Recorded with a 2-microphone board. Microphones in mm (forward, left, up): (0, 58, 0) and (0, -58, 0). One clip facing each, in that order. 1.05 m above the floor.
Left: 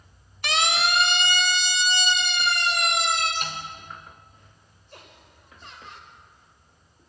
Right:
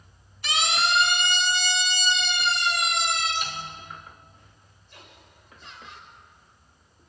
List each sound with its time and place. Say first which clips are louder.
0.4 s a siren: left 1 dB; 70° left (ahead or behind), 2 m; by 3.3 s 60° left (ahead or behind), 4.5 m
3.4 s a snare drum: left 1 dB; 55° left (ahead or behind), 4 m
4.9 s laughter: left 2 dB; 40° left (ahead or behind), 5.5 m